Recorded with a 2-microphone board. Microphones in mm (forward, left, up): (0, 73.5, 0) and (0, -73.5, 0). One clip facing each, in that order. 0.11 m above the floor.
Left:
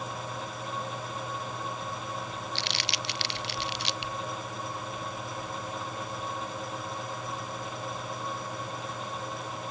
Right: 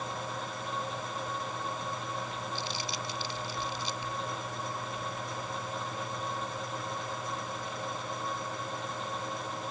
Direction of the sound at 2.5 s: 75° left (ahead or behind).